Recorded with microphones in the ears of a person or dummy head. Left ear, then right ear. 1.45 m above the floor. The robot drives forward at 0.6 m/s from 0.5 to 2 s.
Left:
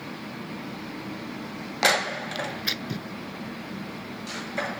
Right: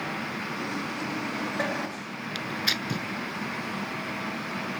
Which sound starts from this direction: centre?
Tearing paper, at 2.4 s.